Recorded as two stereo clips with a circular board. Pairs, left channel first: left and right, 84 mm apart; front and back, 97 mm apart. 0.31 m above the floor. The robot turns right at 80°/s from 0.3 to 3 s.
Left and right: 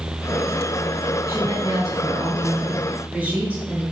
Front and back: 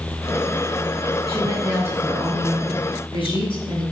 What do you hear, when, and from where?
1.3 s a woman speaking: 155° right, 3 m; by 3.8 s 15° right, 3 m